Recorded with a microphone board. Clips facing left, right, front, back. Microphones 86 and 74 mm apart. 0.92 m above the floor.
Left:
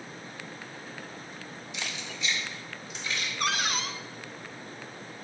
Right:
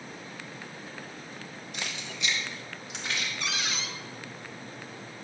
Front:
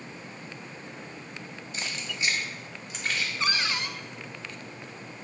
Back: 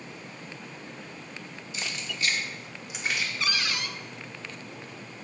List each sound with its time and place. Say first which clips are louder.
1.7 s keys jangling: even, even; 45° right, 1.2 m; by 3.3 s 105° right, 1.6 m
3.4 s a cupboard door: left 4 dB, front 2 dB; 55° left, 0.5 m